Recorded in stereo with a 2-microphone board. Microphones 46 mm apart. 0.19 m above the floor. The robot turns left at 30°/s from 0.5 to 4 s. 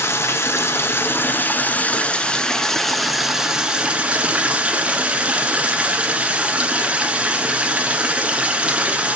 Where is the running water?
75° left, 1.0 m; by 9.2 s 30° right, 1.0 m.